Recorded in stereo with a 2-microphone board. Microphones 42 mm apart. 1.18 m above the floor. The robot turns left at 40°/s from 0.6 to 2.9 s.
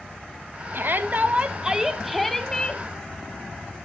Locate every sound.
0.7 s a shout: 125° right, 1.0 m; by 2.8 s 150° left, 1.0 m